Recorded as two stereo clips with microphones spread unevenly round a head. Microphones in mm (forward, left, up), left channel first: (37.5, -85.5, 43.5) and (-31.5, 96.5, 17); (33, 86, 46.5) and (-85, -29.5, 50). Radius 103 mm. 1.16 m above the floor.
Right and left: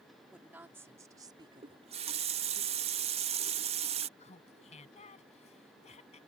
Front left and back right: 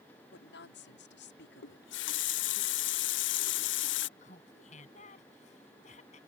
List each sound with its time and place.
0.3 s a woman speaking: 25° left; by 2.6 s 60° left
1.6 s a running tap: 50° left
4.2 s laughter: 10° right